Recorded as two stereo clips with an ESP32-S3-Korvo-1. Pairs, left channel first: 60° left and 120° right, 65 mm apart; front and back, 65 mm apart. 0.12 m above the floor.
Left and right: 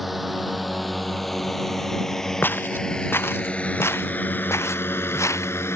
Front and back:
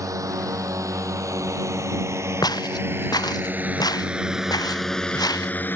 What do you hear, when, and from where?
0.0 s a drone: 155° left; by 5.8 s 40° left
2.4 s footsteps: straight ahead; by 5.5 s 15° left